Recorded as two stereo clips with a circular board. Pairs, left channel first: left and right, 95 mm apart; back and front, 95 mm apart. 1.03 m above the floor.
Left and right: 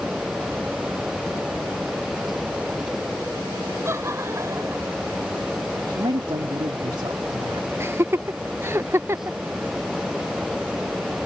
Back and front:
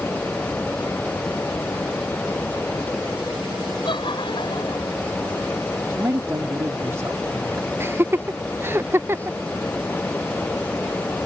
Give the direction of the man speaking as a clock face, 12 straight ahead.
2 o'clock.